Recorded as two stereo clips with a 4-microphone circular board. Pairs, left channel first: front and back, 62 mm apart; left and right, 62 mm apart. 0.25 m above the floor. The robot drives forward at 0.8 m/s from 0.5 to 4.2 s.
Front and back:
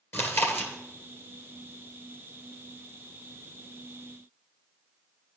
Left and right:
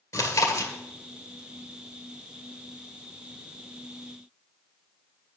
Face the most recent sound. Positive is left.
turn(degrees=145)